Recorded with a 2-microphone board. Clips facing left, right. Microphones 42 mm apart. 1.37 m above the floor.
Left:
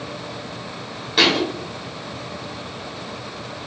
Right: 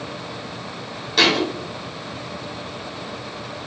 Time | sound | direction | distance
1.2 | a thud | 10° left (ahead or behind) | 1.3 m